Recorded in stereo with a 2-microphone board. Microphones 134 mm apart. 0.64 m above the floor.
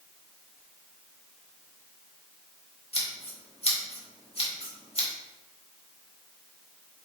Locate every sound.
2.9 s scissors: 45° left (ahead or behind), 1.9 m